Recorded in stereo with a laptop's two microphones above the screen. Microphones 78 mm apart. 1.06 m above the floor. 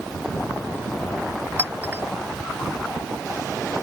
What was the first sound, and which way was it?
A clink, 25° right (ahead or behind).